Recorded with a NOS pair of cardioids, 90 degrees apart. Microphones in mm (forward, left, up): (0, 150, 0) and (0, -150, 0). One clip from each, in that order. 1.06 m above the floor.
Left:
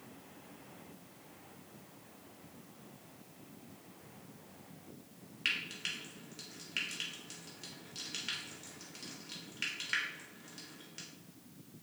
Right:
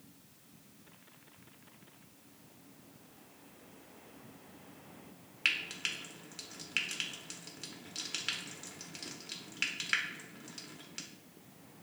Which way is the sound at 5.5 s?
25° right.